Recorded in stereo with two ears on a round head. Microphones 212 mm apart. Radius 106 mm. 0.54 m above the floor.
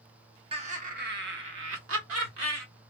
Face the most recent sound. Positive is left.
turn(degrees=-65)  # may be behind; listen again after turning